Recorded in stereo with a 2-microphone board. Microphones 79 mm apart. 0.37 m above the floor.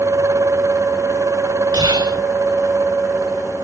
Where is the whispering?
70° right (ahead or behind), 4.5 m.